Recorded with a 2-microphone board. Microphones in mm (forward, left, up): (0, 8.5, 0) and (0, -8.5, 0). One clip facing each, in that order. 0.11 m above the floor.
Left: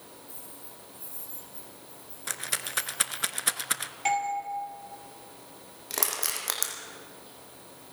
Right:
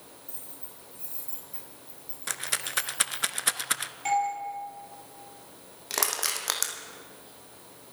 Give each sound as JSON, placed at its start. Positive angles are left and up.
{"t": 0.3, "sound": "keys jangling", "side_deg": -75, "distance_m": 8.0}
{"t": 2.3, "sound": "a rattle", "side_deg": -5, "distance_m": 0.5}
{"t": 4.0, "sound": "a doorbell", "side_deg": 25, "distance_m": 4.0}
{"t": 5.9, "sound": "crushing", "side_deg": -20, "distance_m": 2.0}